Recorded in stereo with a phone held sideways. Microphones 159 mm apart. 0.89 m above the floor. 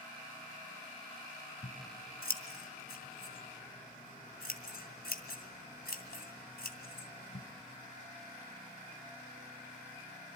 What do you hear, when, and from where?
1.6 s scissors: 80° left, 2.5 m